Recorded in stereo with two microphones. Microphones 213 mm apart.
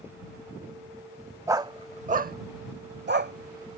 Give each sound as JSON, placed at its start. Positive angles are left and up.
{"t": 1.5, "sound": "a dog barking", "side_deg": -15}